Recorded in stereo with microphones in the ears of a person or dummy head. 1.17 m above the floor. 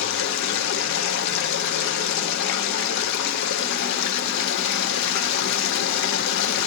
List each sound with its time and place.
0.0 s running water: 65° left (ahead or behind), 0.7 m